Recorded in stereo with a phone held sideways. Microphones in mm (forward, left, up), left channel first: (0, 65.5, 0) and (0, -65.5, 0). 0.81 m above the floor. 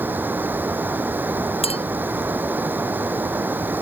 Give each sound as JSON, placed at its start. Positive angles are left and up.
{"t": 0.0, "sound": "running water", "side_deg": -15}
{"t": 1.6, "sound": "a clink", "side_deg": 45}